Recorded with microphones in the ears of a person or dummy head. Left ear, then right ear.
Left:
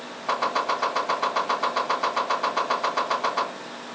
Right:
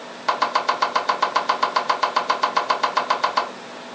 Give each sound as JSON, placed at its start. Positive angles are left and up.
{"t": 0.3, "sound": "chopping", "side_deg": -55, "distance_m": 2.5}